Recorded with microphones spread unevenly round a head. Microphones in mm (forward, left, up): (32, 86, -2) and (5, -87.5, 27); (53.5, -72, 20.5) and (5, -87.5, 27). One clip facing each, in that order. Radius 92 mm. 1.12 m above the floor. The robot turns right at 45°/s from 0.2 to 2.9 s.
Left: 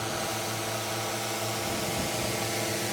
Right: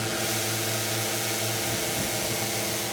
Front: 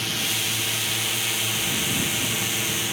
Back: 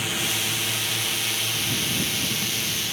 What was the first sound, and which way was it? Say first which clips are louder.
A drone: right 2 dB, back 1 dB; 100° right.